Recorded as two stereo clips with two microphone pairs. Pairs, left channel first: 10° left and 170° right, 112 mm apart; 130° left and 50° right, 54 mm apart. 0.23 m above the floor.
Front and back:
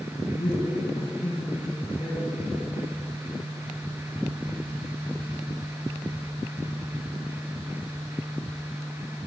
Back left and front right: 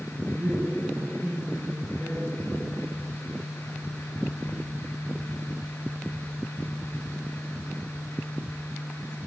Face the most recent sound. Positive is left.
turn(degrees=60)